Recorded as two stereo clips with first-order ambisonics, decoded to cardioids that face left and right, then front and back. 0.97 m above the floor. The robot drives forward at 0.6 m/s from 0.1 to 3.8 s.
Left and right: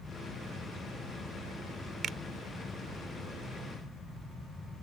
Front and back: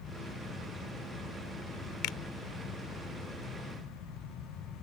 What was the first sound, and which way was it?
A finger snap, 30° right.